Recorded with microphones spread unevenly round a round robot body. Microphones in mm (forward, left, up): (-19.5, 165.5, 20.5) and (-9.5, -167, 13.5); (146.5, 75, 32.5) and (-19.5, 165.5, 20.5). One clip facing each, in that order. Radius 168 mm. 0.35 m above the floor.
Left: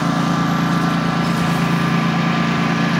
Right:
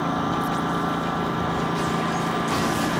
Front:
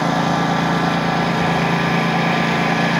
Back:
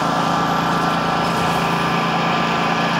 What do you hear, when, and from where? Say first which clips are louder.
0.0 s a lawn mower: left 7 dB, front 2 dB; 50° left